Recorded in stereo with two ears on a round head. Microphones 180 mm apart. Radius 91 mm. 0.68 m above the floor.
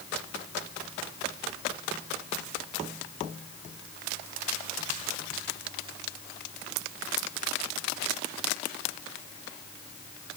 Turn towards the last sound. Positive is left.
No sound to turn to.